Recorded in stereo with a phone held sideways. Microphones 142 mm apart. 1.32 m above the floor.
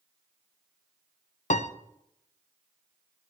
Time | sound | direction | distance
1.5 | a piano | 55° left (ahead or behind) | 0.5 m